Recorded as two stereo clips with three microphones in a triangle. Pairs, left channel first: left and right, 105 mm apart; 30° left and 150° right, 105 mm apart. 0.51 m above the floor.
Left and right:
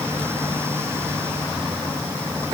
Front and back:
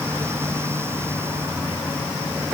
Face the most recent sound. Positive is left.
No sound to turn to.